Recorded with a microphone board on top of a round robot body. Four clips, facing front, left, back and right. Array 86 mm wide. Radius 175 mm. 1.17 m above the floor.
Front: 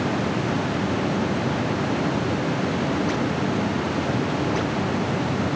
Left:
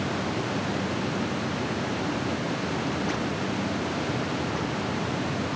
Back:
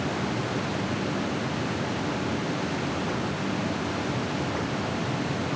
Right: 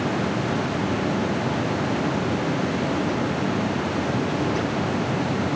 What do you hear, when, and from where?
Only background noise.